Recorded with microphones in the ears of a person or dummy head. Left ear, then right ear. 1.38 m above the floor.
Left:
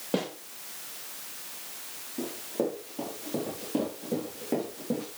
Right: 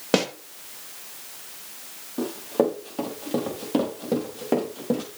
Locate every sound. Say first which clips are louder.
0.1 s a snare drum: right 8 dB; 60° right (ahead or behind), 2 m
2.2 s running footsteps: right 8 dB; 65° right (ahead or behind), 6 m; by 5.0 s 50° right (ahead or behind), 5 m